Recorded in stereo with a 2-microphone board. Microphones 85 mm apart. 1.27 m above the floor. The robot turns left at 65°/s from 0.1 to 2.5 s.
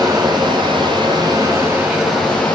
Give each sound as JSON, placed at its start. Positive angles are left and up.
{"t": 0.0, "sound": "running water", "azimuth_deg": -45, "distance_m": 5.0}